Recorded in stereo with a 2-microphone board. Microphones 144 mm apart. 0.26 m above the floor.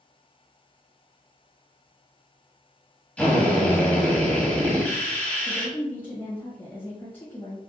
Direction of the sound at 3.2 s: 10° left (ahead or behind).